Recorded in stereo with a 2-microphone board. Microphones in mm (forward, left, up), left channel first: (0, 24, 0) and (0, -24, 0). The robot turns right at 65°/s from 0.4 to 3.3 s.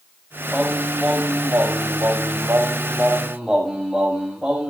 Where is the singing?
165° left, 8 m; by 4.7 s 15° right, 8 m.